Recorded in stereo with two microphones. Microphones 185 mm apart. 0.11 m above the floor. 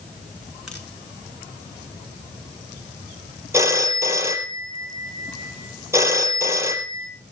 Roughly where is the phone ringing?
Centre.